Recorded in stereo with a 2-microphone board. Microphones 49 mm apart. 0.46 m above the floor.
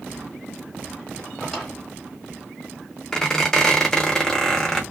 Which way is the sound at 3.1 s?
10° left (ahead or behind).